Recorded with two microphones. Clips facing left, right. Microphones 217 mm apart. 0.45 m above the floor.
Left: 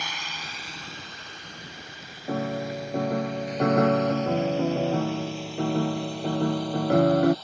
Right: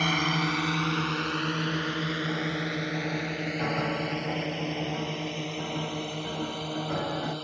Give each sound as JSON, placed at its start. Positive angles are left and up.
{"t": 0.0, "sound": "a drone", "side_deg": -60}
{"t": 2.3, "sound": "a piano", "side_deg": 60}